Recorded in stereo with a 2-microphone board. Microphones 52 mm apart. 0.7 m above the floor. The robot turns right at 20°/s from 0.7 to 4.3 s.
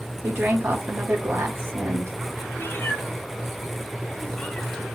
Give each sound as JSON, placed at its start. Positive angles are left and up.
{"t": 0.2, "sound": "a woman speaking", "side_deg": -40, "distance_m": 1.4}
{"t": 2.6, "sound": "a cat meowing", "side_deg": 45, "distance_m": 0.8}